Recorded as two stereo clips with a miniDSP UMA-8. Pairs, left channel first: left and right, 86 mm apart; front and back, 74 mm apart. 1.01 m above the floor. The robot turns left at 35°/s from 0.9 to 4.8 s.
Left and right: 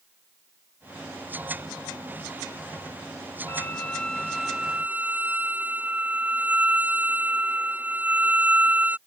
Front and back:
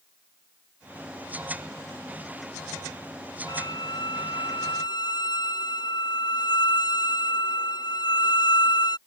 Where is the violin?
30° left; by 9.0 s 15° right.